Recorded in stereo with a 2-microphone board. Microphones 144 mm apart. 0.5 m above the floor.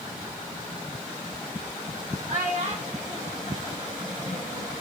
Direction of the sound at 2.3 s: 60° right (ahead or behind).